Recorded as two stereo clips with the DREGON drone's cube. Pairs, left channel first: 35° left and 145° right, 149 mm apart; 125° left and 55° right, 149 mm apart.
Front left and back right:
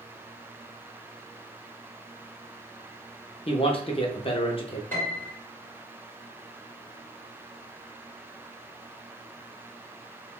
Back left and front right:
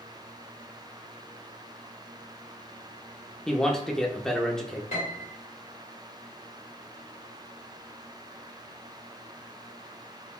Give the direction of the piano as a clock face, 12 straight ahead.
8 o'clock.